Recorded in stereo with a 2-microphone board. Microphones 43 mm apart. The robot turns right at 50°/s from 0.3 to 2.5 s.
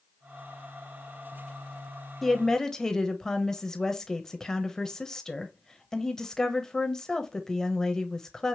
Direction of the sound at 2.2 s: 5° left (ahead or behind).